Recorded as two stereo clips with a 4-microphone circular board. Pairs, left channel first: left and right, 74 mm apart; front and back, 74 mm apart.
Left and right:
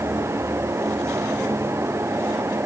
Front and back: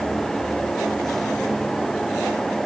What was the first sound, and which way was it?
Only background noise.